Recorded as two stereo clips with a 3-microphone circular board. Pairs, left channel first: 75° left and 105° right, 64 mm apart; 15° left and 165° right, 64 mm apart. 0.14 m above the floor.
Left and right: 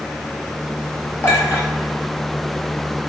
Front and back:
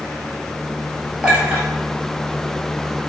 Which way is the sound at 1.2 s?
125° left.